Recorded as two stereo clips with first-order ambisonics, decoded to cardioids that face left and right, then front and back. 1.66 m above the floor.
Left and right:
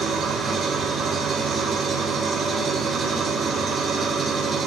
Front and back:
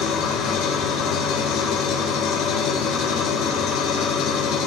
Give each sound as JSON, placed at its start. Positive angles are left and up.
{"t": 0.0, "sound": "an engine running", "azimuth_deg": -25, "distance_m": 1.7}